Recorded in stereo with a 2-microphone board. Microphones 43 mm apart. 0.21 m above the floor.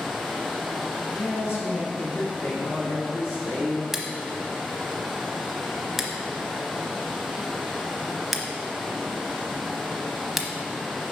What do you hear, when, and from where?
0.0 s running water: centre (ahead or behind), 1.4 m
1.1 s a man speaking: 70° left (ahead or behind), 3 m
3.9 s scissors: 5° right (ahead or behind), 0.8 m